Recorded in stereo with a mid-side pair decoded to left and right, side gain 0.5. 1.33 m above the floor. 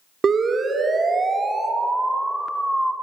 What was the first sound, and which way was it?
A siren, 40° right.